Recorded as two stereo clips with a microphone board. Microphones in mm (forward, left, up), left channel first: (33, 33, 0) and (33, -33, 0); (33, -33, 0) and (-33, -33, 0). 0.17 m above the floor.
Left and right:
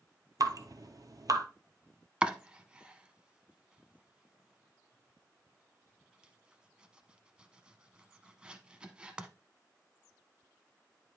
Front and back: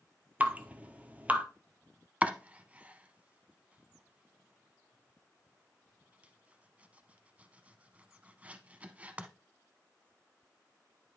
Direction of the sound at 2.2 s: 145° right.